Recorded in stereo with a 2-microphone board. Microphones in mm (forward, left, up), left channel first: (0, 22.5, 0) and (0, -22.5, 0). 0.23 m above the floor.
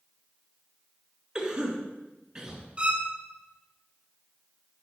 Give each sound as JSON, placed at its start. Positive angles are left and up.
{"t": 1.4, "sound": "a cough", "side_deg": -20, "distance_m": 3.0}
{"t": 2.8, "sound": "a violin", "side_deg": -25, "distance_m": 2.0}